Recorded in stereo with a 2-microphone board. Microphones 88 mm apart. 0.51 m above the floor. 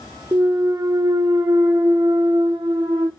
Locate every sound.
0.3 s a clunk: 55° right (ahead or behind), 1.0 m